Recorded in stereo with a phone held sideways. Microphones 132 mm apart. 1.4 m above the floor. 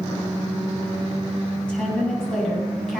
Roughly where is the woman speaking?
Centre.